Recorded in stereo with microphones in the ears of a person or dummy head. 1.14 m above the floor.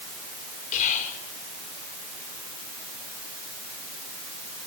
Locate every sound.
0.7 s whispering: 40° left (ahead or behind), 4 m